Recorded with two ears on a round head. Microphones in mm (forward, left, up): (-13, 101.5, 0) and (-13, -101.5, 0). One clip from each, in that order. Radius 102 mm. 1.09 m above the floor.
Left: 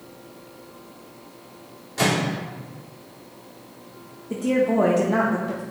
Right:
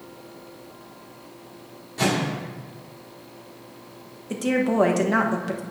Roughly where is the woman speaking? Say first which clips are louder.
Left 2 dB; right.